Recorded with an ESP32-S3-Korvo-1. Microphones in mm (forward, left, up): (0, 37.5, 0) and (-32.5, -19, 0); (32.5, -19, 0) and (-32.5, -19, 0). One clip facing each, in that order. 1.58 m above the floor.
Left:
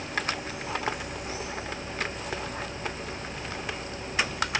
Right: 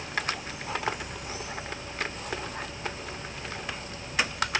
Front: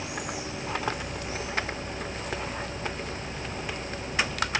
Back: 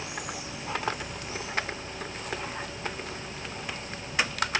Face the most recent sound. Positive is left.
No sound to turn to.